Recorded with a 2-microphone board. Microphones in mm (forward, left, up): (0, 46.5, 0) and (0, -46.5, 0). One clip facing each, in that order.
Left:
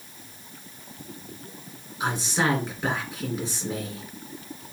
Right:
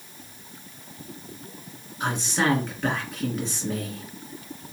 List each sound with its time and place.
2.0 s a man speaking: 10° left (ahead or behind), 2 m